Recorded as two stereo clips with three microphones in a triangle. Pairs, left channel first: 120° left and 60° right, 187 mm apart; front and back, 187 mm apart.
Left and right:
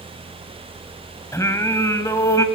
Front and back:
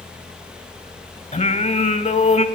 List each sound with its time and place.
1.3 s singing: 50° left, 1.2 m